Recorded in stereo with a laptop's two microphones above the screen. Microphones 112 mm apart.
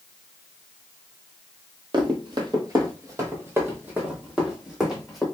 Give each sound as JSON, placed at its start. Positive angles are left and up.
{"t": 1.9, "sound": "running footsteps", "side_deg": -45, "distance_m": 1.3}